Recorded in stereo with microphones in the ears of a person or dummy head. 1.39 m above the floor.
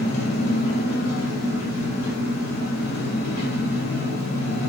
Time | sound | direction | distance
0.0 | an engine running | 60° left (ahead or behind) | 1.7 m